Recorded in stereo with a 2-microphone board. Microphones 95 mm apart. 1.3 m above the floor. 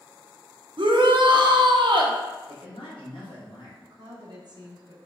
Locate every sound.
0.8 s a shout: 65° right (ahead or behind), 0.6 m
2.5 s a man speaking: 70° left (ahead or behind), 1.4 m
3.8 s a woman speaking: 50° right (ahead or behind), 1.0 m